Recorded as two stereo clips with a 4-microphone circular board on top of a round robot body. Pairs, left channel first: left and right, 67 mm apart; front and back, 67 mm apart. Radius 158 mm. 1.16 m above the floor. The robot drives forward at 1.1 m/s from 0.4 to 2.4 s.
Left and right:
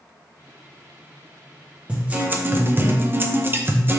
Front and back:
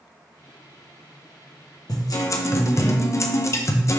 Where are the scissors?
I don't hear scissors.